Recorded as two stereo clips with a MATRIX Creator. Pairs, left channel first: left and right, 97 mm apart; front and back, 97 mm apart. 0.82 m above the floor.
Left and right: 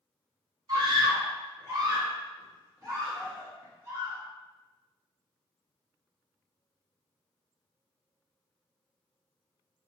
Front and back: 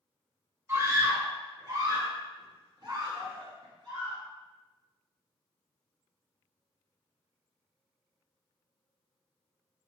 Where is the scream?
125° right, 1.2 m; by 4.2 s 155° right, 2.5 m.